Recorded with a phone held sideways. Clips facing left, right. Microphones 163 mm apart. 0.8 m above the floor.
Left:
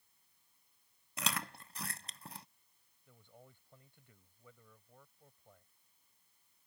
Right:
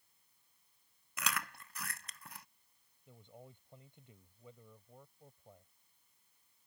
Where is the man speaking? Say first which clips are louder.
Right 5 dB; 20° right (ahead or behind).